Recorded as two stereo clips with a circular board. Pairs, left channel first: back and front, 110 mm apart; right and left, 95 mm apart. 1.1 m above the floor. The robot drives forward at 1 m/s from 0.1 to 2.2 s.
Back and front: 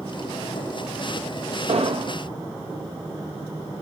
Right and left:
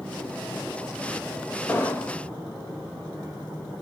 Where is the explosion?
20° right, 0.9 m; by 2.2 s 40° right, 0.5 m.